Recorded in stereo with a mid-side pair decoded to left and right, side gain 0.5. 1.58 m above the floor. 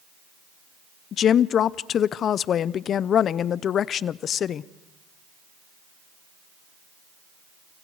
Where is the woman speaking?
55° left, 0.6 m.